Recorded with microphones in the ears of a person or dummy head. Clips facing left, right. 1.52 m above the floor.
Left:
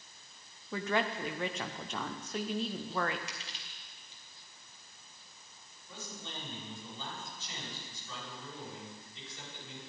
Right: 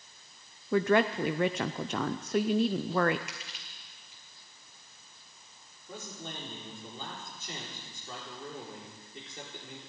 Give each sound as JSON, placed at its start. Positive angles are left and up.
{"t": 0.7, "sound": "a woman speaking", "side_deg": -45, "distance_m": 0.5}
{"t": 3.3, "sound": "crushing", "side_deg": 25, "distance_m": 1.8}
{"t": 5.9, "sound": "a man speaking", "side_deg": -45, "distance_m": 5.5}